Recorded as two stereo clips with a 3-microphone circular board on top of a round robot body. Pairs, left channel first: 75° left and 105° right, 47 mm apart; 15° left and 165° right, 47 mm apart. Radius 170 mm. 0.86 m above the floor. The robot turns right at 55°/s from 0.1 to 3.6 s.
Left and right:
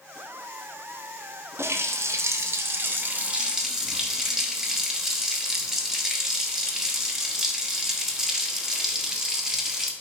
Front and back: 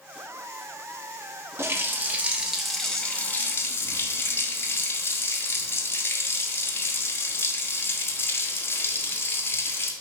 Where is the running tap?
135° right, 1.1 m; by 9.9 s 25° right, 1.1 m.